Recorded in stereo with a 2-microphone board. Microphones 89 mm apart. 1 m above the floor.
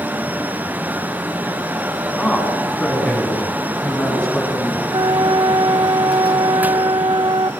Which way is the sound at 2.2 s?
5° left (ahead or behind).